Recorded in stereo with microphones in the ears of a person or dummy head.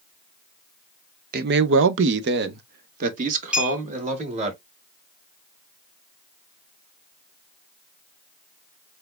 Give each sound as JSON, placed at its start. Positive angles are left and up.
{"t": 1.3, "sound": "a man speaking", "side_deg": -45, "distance_m": 0.6}
{"t": 3.5, "sound": "a clink", "side_deg": -10, "distance_m": 1.1}